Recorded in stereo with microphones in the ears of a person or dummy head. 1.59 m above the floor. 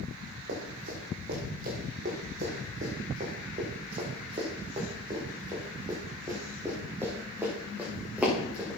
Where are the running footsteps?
60° right (ahead or behind), 5.5 m; by 8.8 s 5° right (ahead or behind), 5.5 m.